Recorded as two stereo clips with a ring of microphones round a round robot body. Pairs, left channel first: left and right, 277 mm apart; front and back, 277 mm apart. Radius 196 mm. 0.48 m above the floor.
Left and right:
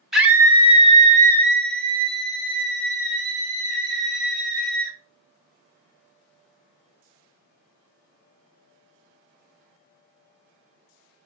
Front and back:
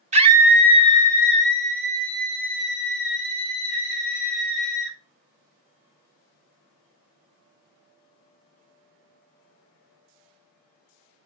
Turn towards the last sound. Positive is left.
turn(degrees=-35)